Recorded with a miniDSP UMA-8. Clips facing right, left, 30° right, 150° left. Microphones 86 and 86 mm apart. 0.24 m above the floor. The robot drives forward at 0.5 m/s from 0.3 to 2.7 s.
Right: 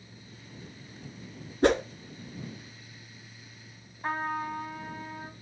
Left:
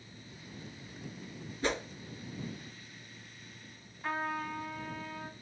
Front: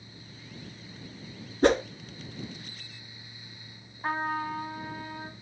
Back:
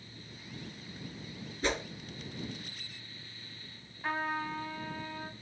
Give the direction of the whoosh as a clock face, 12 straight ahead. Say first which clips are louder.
Right 11 dB, front 12 dB; 2 o'clock.